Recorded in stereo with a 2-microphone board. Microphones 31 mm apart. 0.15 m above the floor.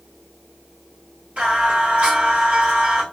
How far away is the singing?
About 1.6 m.